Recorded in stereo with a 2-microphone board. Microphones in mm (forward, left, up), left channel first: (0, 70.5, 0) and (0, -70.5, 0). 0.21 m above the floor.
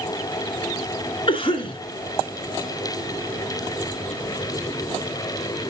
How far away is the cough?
About 2 m.